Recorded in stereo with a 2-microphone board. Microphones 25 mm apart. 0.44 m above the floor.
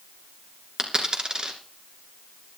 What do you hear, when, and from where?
0.8 s a dropped coin: 30° right (ahead or behind), 2.5 m